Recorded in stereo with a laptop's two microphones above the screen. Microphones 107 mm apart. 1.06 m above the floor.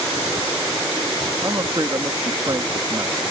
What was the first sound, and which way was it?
A man speaking, 35° right (ahead or behind).